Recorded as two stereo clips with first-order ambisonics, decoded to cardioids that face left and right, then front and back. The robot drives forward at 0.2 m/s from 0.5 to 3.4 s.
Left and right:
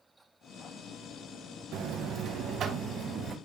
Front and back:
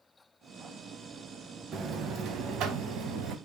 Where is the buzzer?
125° right, 0.6 m; by 3.4 s 150° right, 0.8 m.